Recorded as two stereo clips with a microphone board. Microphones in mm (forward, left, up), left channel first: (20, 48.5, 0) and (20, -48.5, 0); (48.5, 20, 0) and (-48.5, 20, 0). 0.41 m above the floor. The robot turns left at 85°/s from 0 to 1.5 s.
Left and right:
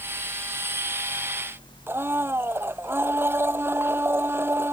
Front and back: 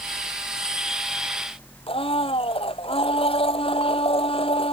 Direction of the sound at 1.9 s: 20° right.